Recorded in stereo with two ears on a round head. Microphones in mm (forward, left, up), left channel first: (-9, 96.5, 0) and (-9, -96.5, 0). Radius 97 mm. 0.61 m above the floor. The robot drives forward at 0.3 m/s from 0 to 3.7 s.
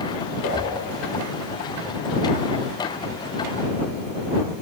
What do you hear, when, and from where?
0.4 s a whoosh: 85° left, 4.5 m